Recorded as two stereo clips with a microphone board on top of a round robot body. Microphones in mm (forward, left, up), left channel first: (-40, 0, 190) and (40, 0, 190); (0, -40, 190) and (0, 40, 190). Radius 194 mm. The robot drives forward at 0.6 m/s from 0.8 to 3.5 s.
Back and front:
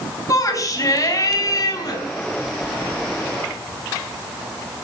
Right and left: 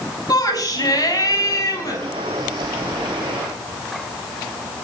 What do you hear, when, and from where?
0.3 s a shout: 130° right, 5 m; by 2.0 s 140° right, 5.5 m